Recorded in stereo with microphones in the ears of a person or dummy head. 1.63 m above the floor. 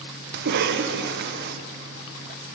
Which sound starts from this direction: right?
A cough, at 0.3 s.